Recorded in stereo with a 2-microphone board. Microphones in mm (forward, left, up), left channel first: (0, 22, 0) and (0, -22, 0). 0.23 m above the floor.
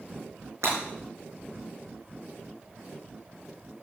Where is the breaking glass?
80° right, 5 m.